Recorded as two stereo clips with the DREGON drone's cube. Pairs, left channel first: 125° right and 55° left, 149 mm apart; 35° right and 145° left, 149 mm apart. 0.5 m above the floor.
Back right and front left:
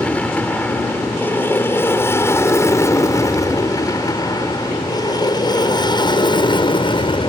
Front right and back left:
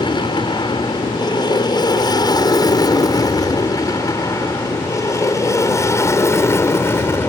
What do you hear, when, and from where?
0.0 s an aircraft: 50° right; by 7.3 s 100° right